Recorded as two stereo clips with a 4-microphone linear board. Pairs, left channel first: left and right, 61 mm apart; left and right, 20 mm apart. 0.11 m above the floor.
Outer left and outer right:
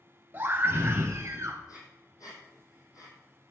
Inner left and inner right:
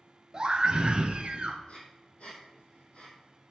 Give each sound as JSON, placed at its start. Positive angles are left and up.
{"t": 0.3, "sound": "a scream", "side_deg": -30, "distance_m": 1.7}
{"t": 1.7, "sound": "breathing", "side_deg": 65, "distance_m": 3.0}